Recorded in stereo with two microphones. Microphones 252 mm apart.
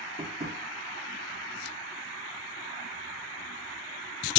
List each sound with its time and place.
0.2 s tapping: 40° right (ahead or behind), 4.5 m